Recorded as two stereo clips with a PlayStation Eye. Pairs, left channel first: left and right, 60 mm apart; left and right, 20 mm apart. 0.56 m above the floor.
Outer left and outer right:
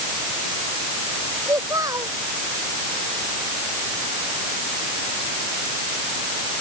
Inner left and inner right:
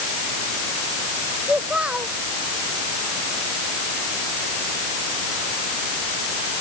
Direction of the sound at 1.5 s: 75° right (ahead or behind).